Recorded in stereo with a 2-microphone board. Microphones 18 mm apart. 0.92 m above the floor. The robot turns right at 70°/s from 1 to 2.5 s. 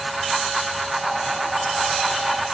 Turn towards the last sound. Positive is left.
No sound to turn to.